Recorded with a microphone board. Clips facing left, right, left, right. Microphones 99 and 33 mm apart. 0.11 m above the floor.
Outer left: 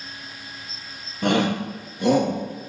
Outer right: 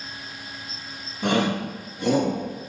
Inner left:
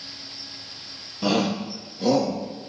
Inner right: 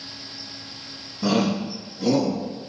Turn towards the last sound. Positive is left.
turn(degrees=70)  # may be behind; listen again after turning